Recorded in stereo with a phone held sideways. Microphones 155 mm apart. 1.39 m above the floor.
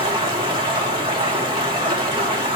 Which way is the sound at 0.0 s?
30° right (ahead or behind).